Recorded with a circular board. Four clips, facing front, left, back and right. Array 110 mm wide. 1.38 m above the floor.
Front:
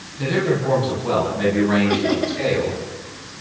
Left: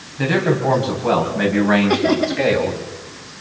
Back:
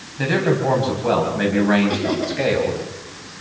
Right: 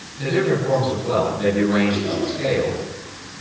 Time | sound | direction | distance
0.2 | a man speaking | 135° left | 9.5 m
1.9 | laughter | 90° left | 2.5 m